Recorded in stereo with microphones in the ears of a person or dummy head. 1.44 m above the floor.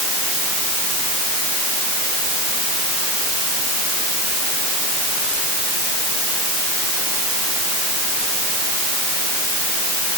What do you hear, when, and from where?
Only background noise.